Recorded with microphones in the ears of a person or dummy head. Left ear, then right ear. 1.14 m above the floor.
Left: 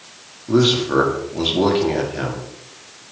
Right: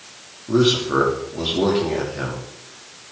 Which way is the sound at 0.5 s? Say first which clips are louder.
Left 1 dB; 20° left (ahead or behind).